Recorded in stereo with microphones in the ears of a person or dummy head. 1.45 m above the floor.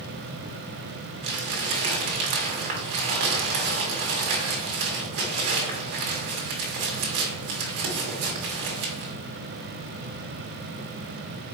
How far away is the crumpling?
About 1.3 m.